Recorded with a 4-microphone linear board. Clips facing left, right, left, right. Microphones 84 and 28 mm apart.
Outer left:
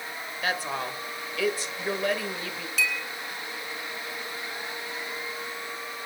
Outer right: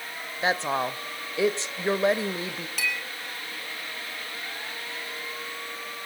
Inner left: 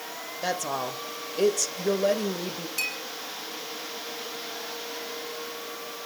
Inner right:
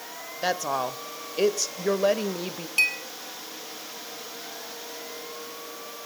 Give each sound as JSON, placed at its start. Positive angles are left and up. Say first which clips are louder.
{"t": 0.4, "sound": "a woman speaking", "louder": "outer right 5 dB, inner right 3 dB", "side_deg": -25, "distance_m": 1.1}
{"t": 2.8, "sound": "a clink", "louder": "outer left 2 dB, inner right 9 dB", "side_deg": -55, "distance_m": 6.0}